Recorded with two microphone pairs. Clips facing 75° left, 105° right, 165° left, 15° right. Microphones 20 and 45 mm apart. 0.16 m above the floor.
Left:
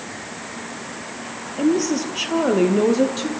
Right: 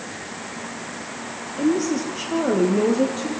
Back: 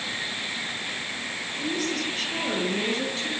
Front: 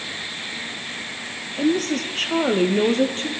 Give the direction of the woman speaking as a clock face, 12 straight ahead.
11 o'clock.